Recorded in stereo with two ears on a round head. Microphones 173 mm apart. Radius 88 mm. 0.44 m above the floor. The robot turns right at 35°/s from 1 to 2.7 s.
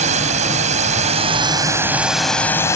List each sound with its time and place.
0.0 s a drone: 45° right; by 2.8 s 15° left